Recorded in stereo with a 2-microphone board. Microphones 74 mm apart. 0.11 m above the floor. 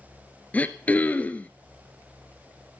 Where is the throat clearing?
20° left (ahead or behind), 1.2 m.